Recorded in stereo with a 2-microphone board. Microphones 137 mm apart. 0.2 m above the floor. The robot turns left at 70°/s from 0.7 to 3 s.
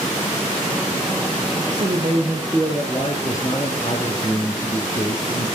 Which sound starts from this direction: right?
A man speaking, at 1.7 s.